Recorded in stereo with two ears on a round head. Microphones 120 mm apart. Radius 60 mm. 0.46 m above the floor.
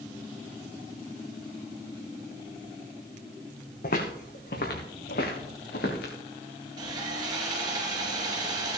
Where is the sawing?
30° right (ahead or behind), 3 m.